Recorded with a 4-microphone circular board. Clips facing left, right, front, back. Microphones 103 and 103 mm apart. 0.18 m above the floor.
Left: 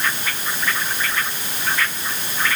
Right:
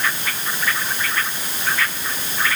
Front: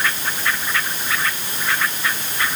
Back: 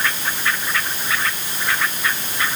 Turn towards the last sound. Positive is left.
No sound to turn to.